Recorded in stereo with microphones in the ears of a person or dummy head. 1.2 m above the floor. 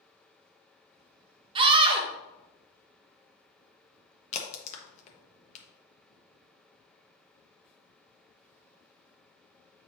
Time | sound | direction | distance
1.6 | a scream | 25° right (ahead or behind) | 0.8 m
4.3 | a crack | 45° left (ahead or behind) | 1.1 m